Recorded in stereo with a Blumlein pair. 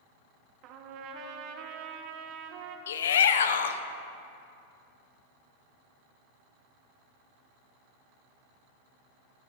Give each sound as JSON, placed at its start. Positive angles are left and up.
{"t": 0.6, "sound": "a trumpet", "azimuth_deg": -40, "distance_m": 0.9}
{"t": 2.9, "sound": "a shout", "azimuth_deg": 65, "distance_m": 0.7}